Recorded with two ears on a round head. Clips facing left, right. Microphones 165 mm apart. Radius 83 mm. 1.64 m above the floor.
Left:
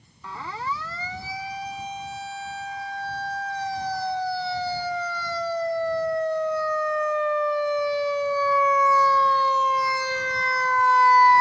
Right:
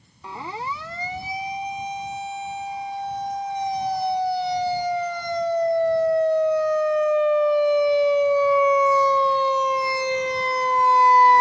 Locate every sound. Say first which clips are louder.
0.2 s a siren: right 1 dB; 15° right (ahead or behind); by 11.4 s 20° right (ahead or behind)